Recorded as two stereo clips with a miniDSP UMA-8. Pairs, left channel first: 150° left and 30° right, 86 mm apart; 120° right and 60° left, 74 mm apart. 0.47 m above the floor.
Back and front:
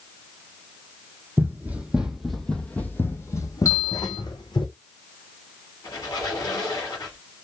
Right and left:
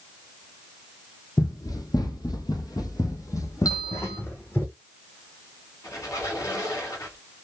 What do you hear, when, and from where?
1.4 s running footsteps: 90° right, 1.0 m; by 4.7 s straight behind, 1.4 m
3.6 s a bell: 155° right, 1.5 m
5.8 s a squeak: 165° right, 2 m